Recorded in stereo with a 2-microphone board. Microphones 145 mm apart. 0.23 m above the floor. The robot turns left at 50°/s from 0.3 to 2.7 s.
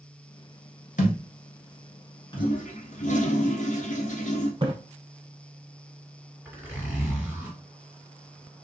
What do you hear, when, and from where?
1.0 s a thud: 65° left (ahead or behind), 1.2 m; by 2.5 s 30° left (ahead or behind), 1.2 m
2.4 s a toilet flushing: 75° left (ahead or behind), 0.7 m; by 4.5 s 60° left (ahead or behind), 0.7 m
4.6 s a splash: 35° right (ahead or behind), 0.7 m
6.5 s a zipper: 15° right (ahead or behind), 2 m